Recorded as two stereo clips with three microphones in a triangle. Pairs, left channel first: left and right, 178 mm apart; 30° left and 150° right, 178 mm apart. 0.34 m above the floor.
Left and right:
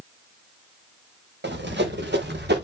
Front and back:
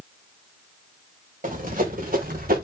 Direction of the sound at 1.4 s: 105° right.